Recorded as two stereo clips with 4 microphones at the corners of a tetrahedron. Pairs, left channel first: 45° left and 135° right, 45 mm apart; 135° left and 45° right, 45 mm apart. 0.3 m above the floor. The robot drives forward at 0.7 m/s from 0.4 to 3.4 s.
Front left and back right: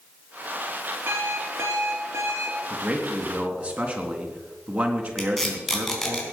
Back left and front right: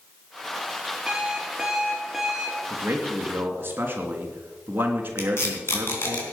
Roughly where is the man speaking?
Right.